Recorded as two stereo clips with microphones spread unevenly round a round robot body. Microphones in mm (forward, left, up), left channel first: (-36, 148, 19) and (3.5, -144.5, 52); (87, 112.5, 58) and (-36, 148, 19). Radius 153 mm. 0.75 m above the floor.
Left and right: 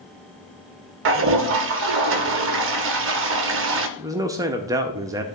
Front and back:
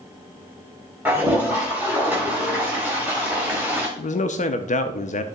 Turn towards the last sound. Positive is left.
turn(degrees=0)